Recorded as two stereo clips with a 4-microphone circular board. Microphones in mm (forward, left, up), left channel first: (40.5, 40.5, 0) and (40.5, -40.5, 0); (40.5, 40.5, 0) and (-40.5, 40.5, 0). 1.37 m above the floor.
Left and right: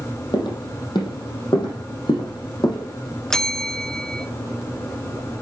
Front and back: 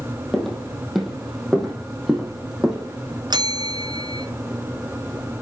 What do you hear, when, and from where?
0.3 s footsteps: 90° left, 3 m; by 3.2 s 95° left, 4.5 m
3.3 s a bell: 170° left, 0.8 m